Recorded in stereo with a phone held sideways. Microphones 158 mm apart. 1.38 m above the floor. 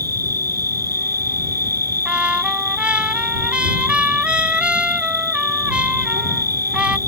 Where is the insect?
85° right.